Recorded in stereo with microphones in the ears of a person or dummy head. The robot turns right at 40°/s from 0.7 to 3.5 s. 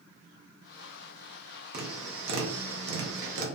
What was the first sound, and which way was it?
Tapping, 125° right.